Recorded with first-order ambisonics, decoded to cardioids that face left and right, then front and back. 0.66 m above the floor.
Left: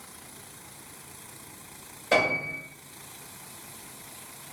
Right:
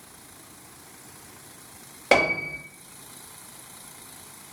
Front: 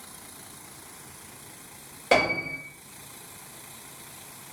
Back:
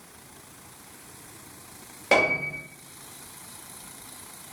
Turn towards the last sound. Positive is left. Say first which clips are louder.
# right 3 dB, back 1 dB
turn(degrees=-95)